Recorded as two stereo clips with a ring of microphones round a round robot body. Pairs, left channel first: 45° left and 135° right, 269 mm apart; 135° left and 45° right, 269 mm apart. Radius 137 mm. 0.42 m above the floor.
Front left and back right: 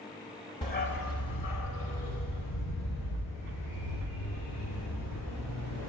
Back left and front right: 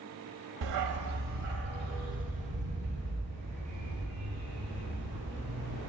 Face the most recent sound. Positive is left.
turn(degrees=30)